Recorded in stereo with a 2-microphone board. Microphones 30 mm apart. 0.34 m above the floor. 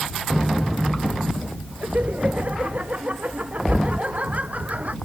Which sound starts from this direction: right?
Laughter, at 1.8 s.